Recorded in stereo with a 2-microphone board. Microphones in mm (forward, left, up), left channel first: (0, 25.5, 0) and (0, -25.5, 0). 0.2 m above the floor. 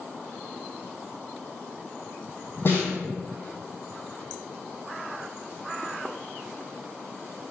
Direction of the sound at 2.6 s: 55° left (ahead or behind).